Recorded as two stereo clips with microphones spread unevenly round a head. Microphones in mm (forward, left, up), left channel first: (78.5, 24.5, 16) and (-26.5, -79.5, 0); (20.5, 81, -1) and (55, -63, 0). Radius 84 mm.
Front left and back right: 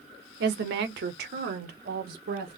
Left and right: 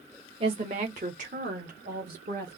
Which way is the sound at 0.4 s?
135° right.